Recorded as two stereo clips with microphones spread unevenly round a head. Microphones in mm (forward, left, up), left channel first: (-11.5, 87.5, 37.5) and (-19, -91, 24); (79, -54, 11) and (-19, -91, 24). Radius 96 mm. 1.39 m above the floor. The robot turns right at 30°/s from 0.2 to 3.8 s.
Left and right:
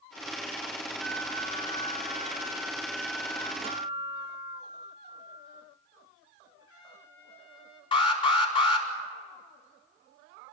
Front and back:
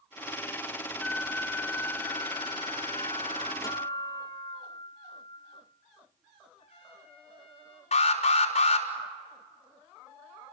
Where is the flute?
55° right, 8.5 m; by 3.5 s 20° left, 8.5 m.